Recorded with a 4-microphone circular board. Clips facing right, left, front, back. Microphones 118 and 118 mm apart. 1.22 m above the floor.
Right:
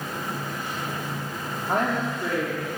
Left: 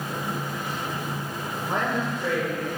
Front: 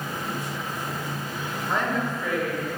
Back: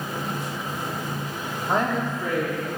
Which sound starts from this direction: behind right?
A woman speaking, at 1.7 s.